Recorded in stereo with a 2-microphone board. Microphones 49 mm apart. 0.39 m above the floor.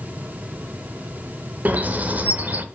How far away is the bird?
About 0.8 m.